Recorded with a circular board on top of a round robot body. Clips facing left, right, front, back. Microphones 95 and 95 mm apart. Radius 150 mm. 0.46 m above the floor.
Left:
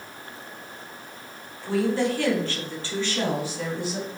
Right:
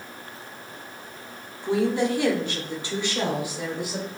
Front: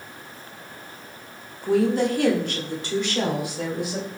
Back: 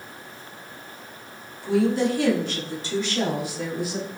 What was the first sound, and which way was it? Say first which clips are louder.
A woman speaking: right 1 dB, front 1 dB; 20° right.